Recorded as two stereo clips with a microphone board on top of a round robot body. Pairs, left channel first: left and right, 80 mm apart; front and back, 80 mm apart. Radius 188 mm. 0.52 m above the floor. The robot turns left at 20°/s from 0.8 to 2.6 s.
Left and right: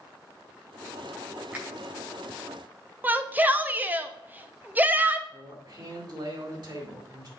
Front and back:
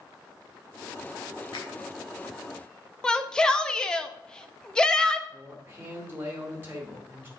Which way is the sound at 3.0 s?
65° right.